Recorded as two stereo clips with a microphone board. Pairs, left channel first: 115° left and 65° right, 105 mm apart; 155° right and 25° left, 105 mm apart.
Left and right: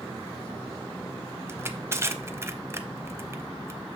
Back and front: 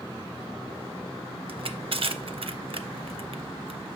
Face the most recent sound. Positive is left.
turn(degrees=0)